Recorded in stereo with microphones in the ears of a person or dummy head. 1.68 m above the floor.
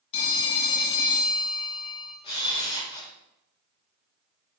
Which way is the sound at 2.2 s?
35° left (ahead or behind).